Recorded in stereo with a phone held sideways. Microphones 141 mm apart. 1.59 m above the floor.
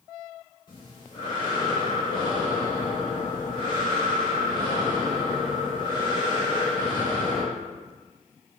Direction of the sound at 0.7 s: 35° left (ahead or behind).